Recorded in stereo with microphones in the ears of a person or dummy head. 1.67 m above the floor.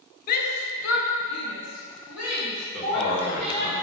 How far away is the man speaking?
About 2 m.